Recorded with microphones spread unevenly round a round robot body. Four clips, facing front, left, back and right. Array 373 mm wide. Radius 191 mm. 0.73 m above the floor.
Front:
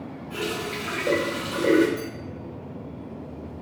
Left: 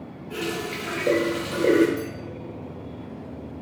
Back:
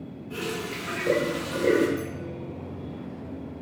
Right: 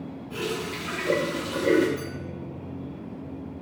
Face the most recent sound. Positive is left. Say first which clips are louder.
# left 4 dB, even
turn(degrees=90)